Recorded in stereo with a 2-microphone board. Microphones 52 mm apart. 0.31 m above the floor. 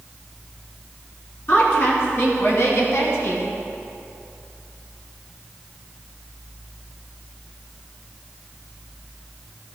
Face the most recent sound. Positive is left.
turn(degrees=65)  # may be behind; listen again after turning